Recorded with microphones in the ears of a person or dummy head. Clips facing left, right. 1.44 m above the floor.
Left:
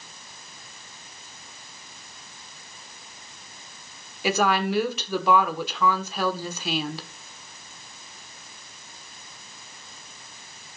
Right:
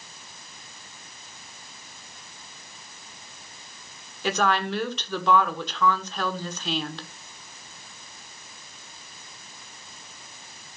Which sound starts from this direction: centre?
A woman speaking, at 4.2 s.